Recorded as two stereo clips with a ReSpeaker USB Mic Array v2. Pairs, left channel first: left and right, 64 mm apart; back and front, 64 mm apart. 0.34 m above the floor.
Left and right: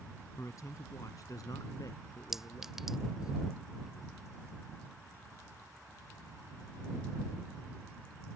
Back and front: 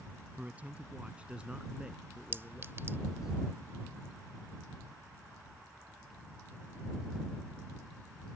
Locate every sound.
0.4 s a man speaking: 65° left; by 3.3 s 85° left
2.3 s a clink: 10° right